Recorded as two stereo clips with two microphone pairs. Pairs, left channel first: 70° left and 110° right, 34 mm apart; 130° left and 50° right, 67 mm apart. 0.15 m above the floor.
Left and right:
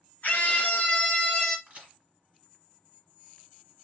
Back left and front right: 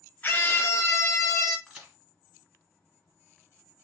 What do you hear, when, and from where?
0.2 s a scream: 75° left, 1.7 m; by 1.6 s 130° left, 1.6 m
1.7 s a crack: 135° right, 2 m